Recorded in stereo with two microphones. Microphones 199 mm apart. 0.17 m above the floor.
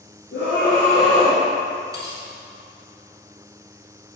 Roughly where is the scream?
Left.